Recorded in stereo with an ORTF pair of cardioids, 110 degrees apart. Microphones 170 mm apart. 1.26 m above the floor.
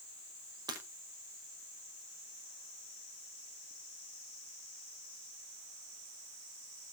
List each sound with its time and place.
0.7 s breaking glass: 25° right, 6 m